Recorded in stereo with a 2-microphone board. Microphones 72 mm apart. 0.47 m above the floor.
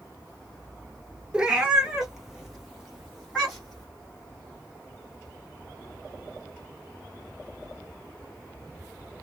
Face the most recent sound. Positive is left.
turn(degrees=0)  # may be behind; listen again after turning